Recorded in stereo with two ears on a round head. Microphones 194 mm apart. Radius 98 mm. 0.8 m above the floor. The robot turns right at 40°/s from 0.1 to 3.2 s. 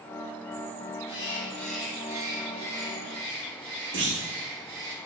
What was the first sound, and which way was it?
A bird, 150° left.